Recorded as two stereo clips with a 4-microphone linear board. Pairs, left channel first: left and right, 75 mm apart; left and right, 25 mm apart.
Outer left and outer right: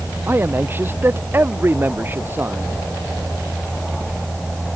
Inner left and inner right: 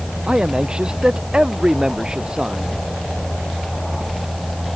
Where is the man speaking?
30° right (ahead or behind).